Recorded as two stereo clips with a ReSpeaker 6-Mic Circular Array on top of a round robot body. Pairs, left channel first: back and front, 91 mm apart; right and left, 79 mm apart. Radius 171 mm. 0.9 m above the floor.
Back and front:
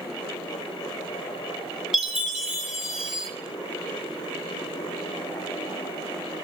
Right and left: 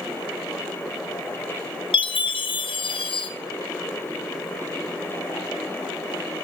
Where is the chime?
85° right, 2.5 m.